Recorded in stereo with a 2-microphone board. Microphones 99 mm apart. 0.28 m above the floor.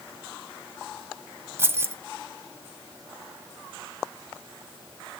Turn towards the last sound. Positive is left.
turn(degrees=-25)  # may be behind; listen again after turning